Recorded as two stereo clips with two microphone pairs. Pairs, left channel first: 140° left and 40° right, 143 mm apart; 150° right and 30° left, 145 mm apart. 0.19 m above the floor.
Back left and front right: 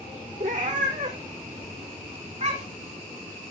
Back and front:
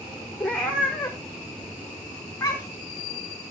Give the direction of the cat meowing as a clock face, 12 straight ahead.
2 o'clock.